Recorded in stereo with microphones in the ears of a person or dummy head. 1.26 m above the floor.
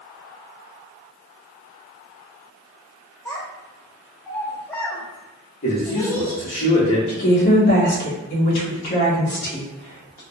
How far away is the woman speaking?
About 1.1 m.